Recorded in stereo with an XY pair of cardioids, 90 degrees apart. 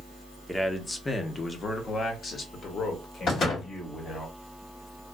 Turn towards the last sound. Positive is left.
turn(degrees=70)